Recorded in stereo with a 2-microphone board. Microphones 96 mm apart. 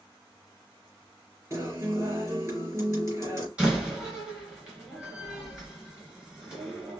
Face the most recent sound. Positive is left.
turn(degrees=-10)  # may be behind; listen again after turning